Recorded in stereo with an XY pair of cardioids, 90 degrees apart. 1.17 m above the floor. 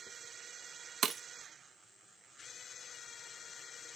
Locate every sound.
1.0 s breaking glass: 60° right, 0.7 m